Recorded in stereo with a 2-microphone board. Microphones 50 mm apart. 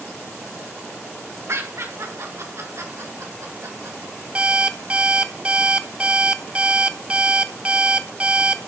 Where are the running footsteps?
No running footsteps in this recording.